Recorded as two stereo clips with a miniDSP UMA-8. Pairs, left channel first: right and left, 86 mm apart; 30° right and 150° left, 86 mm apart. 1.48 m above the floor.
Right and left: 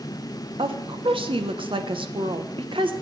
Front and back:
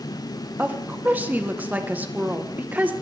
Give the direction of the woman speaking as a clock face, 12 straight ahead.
9 o'clock.